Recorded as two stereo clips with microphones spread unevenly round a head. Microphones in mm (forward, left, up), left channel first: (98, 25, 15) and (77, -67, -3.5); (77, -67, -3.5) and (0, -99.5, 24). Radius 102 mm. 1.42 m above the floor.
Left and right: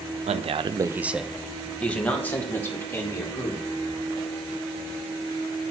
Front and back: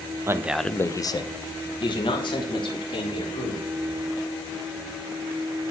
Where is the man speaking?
100° right, 0.6 m; by 3.7 s 10° left, 3 m.